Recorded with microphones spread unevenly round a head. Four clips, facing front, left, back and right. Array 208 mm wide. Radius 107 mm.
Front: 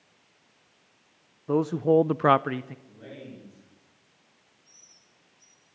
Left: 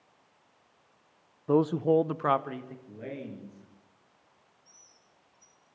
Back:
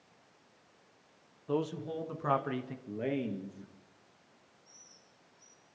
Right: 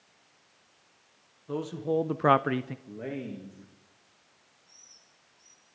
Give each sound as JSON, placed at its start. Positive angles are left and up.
{"t": 1.5, "sound": "a man speaking", "azimuth_deg": 45, "distance_m": 1.1}
{"t": 2.9, "sound": "a man speaking", "azimuth_deg": -160, "distance_m": 2.5}
{"t": 4.7, "sound": "a bird", "azimuth_deg": 25, "distance_m": 7.5}